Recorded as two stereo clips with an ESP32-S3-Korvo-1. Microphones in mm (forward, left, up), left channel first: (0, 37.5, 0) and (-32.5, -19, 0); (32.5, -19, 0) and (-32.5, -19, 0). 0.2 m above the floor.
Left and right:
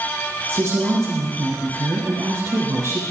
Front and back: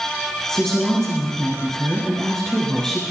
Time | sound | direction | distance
0.5 | a woman speaking | 80° right | 3 m